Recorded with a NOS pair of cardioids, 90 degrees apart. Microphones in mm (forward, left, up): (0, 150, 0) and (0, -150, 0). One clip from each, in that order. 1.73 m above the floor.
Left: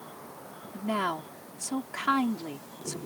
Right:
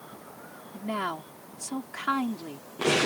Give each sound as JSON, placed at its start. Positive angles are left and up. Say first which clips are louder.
{"t": 0.7, "sound": "a woman speaking", "louder": "left 2 dB", "azimuth_deg": 10}